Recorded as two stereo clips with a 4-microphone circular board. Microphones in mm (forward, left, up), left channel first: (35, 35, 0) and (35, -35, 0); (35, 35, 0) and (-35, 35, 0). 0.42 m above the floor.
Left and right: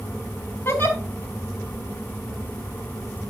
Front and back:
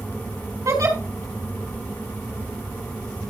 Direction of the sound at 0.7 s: 145° left.